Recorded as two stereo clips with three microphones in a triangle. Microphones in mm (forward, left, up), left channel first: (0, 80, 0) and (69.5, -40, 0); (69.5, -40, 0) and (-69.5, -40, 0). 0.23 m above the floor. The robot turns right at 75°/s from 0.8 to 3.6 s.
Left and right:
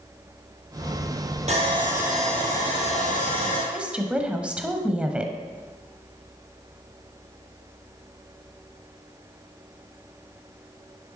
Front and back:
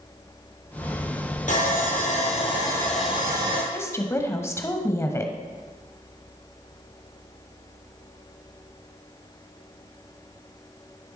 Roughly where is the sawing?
Ahead right.